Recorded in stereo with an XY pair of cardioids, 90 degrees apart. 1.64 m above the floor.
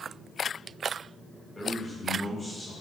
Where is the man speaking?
20° left, 1.7 m.